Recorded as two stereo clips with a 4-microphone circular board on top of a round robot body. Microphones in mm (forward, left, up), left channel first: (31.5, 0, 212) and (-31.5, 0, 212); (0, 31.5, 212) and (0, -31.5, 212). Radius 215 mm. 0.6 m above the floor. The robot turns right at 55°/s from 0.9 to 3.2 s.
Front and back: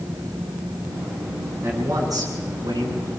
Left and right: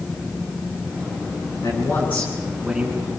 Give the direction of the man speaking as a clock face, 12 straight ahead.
8 o'clock.